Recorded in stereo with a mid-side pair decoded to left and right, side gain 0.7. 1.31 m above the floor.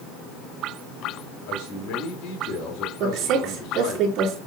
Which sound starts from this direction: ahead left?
A man speaking, at 1.5 s.